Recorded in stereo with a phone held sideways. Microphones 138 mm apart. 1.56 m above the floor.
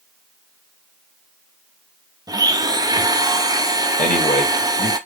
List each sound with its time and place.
2.3 s a blender: 30° right (ahead or behind), 0.6 m
4.0 s a man speaking: 70° left (ahead or behind), 1.6 m